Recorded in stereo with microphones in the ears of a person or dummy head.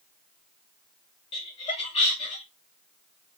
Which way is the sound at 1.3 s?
30° left (ahead or behind).